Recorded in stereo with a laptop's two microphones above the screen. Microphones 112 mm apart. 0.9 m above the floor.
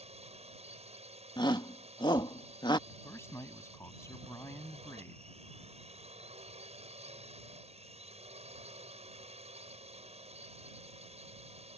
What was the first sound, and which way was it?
A drone, 70° right (ahead or behind).